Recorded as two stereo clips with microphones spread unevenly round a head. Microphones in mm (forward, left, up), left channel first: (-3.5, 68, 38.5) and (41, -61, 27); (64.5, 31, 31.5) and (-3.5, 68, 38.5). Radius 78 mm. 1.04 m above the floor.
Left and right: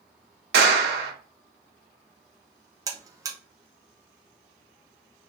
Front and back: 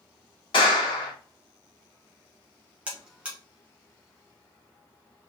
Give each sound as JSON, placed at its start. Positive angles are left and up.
{"t": 0.5, "sound": "a clap", "azimuth_deg": -70, "distance_m": 0.9}
{"t": 2.9, "sound": "a buzzer", "azimuth_deg": -130, "distance_m": 0.6}